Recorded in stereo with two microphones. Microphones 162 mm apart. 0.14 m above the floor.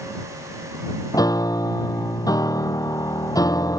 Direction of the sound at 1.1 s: 25° left (ahead or behind).